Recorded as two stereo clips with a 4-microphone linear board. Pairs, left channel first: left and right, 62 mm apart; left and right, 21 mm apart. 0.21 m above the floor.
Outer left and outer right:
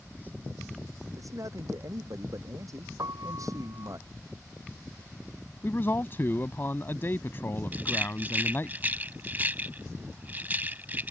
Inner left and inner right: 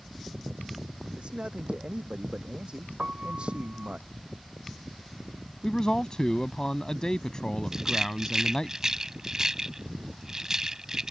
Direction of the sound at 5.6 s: 40° left (ahead or behind).